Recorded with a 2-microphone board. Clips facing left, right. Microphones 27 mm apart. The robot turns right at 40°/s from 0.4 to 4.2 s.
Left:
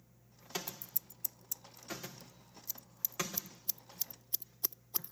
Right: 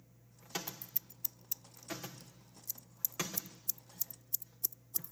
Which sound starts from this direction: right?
Scissors, at 0.7 s.